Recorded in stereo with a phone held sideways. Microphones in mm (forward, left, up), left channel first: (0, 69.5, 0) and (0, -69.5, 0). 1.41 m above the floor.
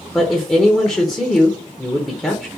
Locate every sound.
0.1 s a woman speaking: 5° left (ahead or behind), 0.7 m